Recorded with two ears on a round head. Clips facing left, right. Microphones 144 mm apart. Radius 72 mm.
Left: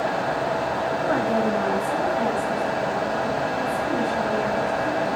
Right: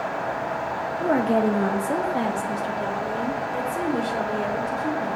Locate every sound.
1.0 s a woman speaking: 20° right (ahead or behind), 0.8 m; by 5.1 s 55° right (ahead or behind), 4 m